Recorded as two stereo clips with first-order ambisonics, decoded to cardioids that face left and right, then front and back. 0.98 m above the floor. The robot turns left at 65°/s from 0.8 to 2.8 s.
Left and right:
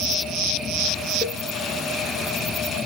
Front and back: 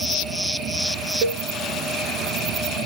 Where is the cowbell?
145° left, 0.7 m; by 1.4 s 130° left, 0.7 m.